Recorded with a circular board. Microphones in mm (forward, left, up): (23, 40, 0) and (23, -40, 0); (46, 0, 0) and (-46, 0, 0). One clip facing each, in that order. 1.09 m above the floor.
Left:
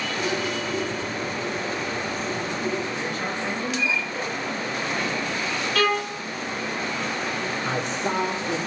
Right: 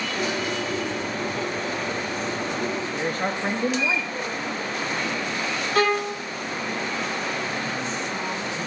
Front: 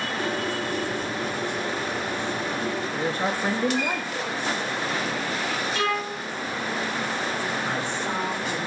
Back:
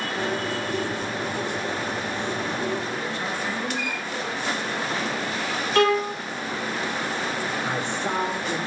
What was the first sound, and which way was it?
A bird, 125° right.